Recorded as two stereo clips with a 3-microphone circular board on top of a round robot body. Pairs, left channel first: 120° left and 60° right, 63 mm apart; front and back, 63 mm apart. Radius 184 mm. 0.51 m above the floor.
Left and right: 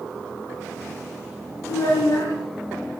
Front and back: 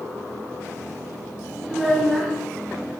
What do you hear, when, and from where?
1.7 s a child speaking: 90° left, 5.5 m